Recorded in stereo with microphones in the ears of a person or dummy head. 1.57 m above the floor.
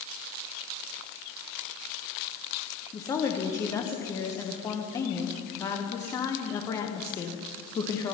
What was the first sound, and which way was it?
A woman speaking, 20° left (ahead or behind).